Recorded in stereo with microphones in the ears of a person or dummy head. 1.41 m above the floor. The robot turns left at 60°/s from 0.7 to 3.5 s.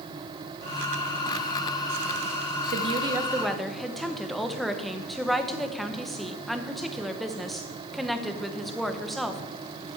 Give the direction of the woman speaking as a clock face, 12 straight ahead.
4 o'clock.